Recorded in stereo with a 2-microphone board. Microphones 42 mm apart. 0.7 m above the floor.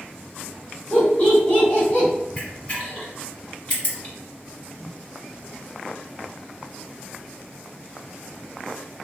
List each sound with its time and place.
0.9 s laughter: 30° left (ahead or behind), 1.3 m
2.4 s a camera shutter: 35° left (ahead or behind), 1.2 m